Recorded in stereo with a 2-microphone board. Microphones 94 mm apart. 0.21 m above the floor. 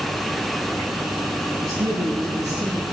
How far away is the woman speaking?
About 7.5 m.